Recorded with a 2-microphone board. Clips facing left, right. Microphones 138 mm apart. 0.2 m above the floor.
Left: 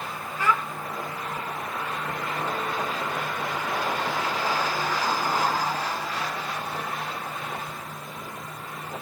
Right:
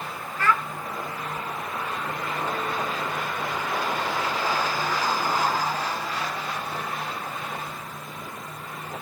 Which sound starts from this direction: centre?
A child speaking, at 0.4 s.